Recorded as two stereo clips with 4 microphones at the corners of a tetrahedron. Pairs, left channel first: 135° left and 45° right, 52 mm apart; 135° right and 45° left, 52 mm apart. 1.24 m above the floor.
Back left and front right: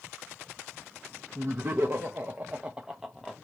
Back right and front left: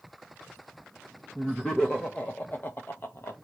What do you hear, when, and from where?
1.4 s laughter: 55° right, 1.0 m; by 3.4 s 140° right, 0.8 m